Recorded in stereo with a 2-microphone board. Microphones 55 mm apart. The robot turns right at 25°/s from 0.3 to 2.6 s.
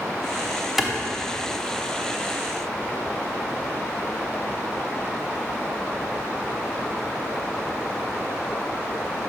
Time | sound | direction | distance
0.8 | a clap | 5° right (ahead or behind) | 0.9 m